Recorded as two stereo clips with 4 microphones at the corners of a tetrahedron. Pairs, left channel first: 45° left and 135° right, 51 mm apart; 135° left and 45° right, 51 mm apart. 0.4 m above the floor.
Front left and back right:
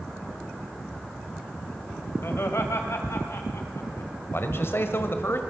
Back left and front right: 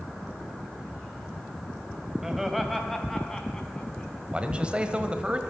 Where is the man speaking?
20° left, 1.5 m.